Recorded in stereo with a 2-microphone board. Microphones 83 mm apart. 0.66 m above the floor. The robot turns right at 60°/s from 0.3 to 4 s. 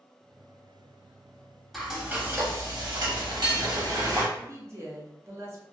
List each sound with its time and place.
1.7 s frying: 175° left, 0.7 m; by 4.2 s 45° right, 0.7 m
4.3 s a woman speaking: 35° right (ahead or behind), 0.7 m